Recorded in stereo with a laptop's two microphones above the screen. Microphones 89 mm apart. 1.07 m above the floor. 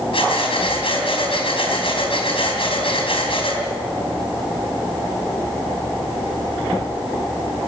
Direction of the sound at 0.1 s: 75° left (ahead or behind).